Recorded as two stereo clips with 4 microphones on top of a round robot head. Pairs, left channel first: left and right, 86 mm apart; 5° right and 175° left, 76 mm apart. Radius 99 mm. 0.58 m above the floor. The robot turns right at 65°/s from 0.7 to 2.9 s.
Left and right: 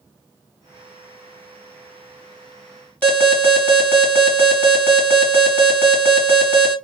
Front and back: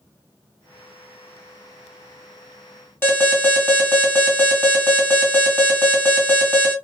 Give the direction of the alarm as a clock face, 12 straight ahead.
11 o'clock.